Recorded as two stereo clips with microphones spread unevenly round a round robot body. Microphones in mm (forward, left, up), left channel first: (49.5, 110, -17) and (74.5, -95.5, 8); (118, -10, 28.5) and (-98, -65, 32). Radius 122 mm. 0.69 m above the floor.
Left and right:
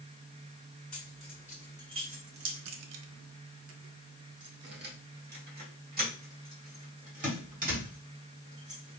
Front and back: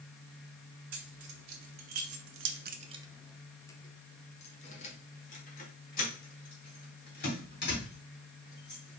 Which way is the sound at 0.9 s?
175° right.